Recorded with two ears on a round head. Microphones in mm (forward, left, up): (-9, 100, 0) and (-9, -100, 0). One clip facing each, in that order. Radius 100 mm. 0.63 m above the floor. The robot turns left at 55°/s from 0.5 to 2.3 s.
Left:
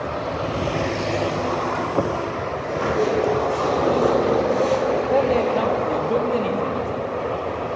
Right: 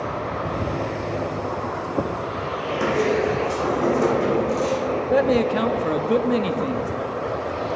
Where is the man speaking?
20° right (ahead or behind), 0.6 m.